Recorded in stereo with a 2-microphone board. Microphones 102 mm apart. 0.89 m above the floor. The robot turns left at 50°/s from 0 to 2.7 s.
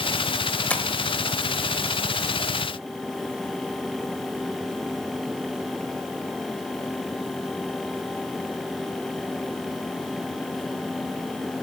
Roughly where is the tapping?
Centre.